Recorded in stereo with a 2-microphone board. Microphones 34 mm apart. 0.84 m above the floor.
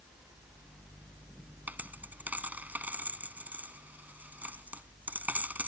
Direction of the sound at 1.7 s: 50° right (ahead or behind).